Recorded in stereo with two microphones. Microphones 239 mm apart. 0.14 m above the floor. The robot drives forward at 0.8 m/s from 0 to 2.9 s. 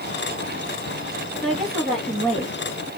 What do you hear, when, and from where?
1.4 s a woman speaking: centre (ahead or behind), 1.4 m